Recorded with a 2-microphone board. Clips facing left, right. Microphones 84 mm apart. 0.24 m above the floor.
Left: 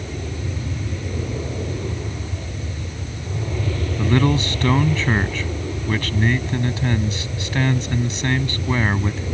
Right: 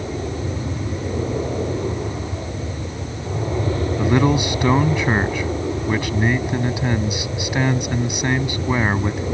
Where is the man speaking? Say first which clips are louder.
Right 1 dB; 15° right (ahead or behind).